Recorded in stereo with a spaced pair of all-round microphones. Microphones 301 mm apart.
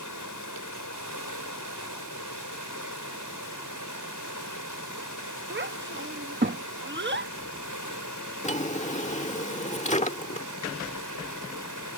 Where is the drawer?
25° left (ahead or behind).